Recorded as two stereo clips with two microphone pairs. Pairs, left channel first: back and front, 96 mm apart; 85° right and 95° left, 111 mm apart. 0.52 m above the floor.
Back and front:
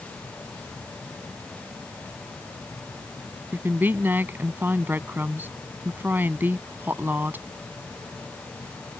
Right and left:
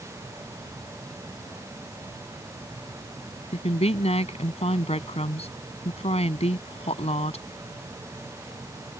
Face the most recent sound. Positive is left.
turn(degrees=-70)